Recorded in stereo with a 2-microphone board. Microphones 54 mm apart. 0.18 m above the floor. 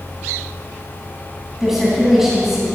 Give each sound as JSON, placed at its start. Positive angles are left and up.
{"t": 1.6, "sound": "a woman speaking", "side_deg": -10, "distance_m": 1.5}